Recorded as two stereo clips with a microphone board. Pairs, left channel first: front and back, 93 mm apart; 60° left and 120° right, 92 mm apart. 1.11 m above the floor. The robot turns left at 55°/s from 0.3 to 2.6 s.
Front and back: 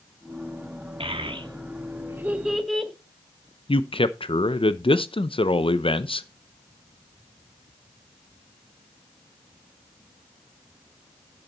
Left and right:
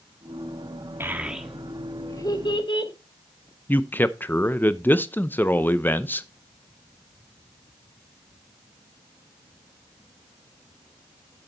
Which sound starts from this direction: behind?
A child speaking, at 1.0 s.